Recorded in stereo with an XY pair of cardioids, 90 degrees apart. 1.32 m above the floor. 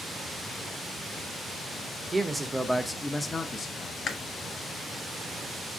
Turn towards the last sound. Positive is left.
turn(degrees=60)